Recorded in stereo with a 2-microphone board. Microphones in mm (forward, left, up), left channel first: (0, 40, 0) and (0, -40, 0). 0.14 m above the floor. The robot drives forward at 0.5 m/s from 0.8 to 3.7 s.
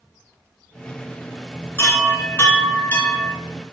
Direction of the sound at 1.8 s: 30° left (ahead or behind).